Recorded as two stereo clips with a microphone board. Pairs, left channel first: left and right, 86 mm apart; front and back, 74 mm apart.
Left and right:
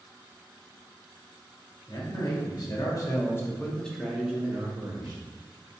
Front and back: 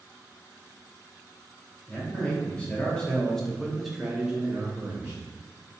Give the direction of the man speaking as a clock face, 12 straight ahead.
10 o'clock.